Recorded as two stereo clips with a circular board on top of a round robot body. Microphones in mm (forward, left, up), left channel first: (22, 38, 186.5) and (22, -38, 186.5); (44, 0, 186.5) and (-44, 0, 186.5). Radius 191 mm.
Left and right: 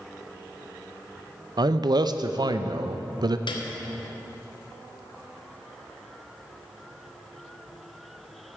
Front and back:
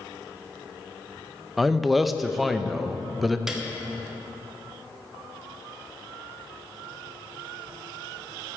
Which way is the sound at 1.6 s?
90° right.